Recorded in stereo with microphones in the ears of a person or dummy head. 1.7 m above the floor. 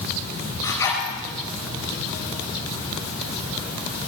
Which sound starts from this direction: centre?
A zipper, at 0.6 s.